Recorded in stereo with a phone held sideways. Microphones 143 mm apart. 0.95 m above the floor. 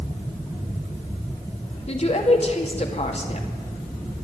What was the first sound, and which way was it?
A woman speaking, 45° left (ahead or behind).